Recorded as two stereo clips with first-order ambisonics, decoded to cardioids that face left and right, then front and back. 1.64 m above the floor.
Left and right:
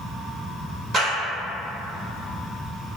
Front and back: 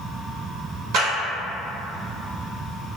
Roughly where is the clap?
Behind.